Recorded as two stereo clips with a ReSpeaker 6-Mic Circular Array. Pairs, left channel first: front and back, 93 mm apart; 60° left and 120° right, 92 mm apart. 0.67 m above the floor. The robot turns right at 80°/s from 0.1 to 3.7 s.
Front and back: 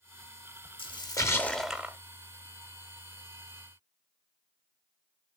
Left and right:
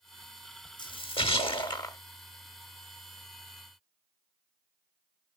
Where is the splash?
20° left, 0.8 m; by 2.0 s 115° left, 0.8 m.